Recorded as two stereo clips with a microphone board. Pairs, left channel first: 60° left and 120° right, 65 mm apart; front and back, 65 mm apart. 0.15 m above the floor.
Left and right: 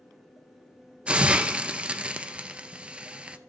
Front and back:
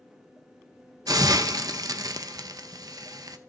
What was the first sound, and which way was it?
A hiss, 165° left.